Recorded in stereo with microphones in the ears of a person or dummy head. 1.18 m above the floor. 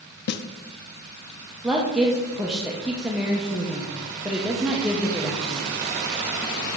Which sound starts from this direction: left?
A snare drum, at 0.3 s.